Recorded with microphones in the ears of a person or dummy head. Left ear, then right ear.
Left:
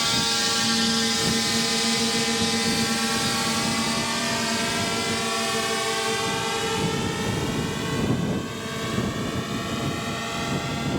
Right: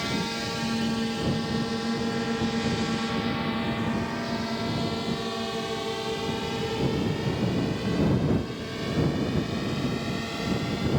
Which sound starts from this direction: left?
A drone, at 0.0 s.